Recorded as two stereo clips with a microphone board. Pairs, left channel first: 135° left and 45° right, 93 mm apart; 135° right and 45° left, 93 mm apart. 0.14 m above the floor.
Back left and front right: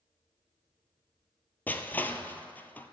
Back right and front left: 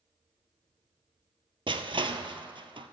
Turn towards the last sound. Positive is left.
turn(degrees=65)